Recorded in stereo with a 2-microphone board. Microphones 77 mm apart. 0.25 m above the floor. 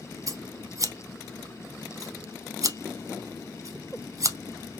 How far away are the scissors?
About 0.6 m.